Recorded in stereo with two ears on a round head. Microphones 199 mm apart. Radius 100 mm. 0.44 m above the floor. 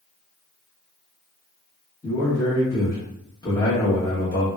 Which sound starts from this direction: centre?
A man speaking, at 2.0 s.